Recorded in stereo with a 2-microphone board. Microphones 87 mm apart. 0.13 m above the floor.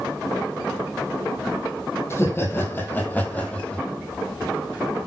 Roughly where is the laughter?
Left.